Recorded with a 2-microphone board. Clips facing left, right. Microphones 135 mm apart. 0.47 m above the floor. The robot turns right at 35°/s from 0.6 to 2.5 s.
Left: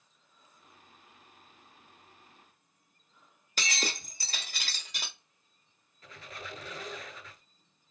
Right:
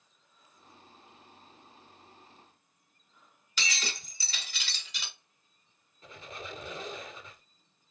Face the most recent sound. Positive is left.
turn(degrees=-25)  # may be behind; listen again after turning